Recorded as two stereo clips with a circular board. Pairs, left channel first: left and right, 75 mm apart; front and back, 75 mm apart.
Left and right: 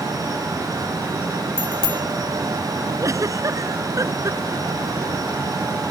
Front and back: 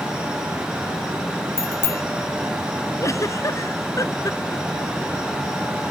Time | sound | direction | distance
1.6 | a bicycle bell | 60° left | ?
3.0 | a giggle | 45° right | ?